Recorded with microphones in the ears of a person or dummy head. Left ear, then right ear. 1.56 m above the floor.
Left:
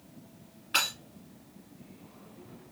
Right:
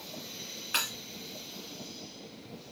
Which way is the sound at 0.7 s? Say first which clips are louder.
Left 3 dB; 20° right (ahead or behind).